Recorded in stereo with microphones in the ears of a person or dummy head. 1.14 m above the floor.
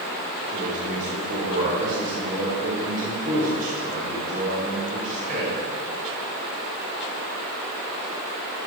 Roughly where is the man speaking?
Right.